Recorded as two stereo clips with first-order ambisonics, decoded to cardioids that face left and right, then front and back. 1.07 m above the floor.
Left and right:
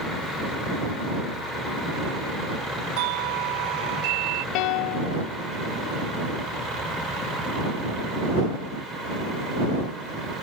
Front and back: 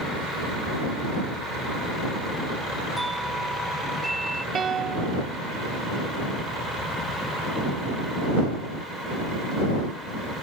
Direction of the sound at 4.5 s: 115° left.